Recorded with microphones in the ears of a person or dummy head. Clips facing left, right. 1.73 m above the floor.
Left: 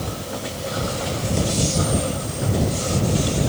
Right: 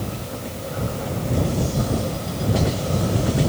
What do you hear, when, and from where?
Only background noise.